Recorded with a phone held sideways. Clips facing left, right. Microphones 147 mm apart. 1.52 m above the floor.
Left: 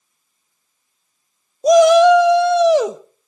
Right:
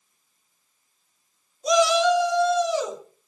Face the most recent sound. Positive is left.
turn(degrees=75)  # may be behind; listen again after turning